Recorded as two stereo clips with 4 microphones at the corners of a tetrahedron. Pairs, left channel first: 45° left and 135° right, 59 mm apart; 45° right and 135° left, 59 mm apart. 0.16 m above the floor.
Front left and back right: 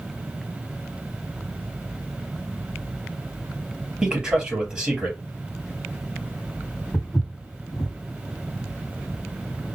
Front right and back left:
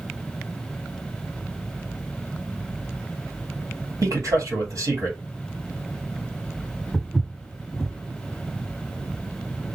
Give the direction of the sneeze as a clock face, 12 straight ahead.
No sneeze in this recording.